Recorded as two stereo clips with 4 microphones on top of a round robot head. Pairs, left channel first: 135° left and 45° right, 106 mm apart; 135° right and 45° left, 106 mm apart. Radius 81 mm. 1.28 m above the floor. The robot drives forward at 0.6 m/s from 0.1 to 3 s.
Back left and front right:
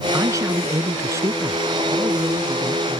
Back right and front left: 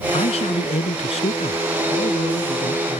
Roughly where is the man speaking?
Right.